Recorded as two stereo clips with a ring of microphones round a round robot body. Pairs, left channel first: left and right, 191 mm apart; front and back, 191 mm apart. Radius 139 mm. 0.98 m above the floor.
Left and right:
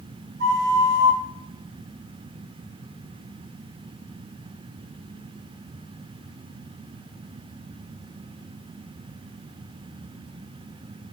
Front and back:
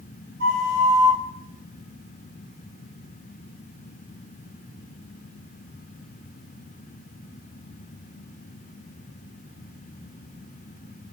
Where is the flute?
130° right, 1.2 m.